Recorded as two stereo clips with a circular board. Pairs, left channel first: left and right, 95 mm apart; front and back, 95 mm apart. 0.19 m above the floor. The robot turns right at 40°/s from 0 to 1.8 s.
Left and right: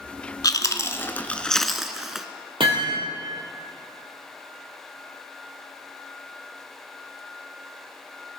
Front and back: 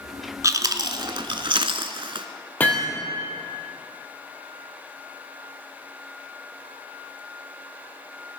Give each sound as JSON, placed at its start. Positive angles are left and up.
{"t": 0.4, "sound": "chewing", "azimuth_deg": 130, "distance_m": 0.8}
{"t": 2.6, "sound": "hammering", "azimuth_deg": -70, "distance_m": 3.5}